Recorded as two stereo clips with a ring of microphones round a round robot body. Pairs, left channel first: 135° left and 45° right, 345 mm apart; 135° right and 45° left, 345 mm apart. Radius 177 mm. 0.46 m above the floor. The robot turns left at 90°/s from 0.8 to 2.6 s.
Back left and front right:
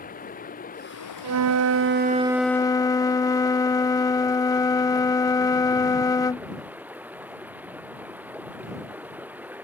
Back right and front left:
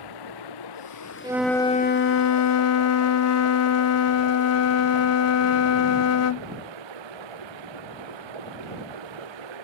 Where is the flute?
25° right; by 6.5 s 150° right.